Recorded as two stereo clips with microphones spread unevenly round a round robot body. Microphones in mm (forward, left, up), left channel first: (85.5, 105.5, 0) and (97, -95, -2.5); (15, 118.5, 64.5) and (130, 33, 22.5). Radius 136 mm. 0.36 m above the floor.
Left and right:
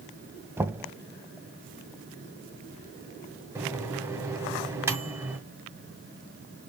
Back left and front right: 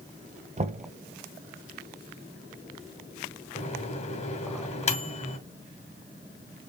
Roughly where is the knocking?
Ahead.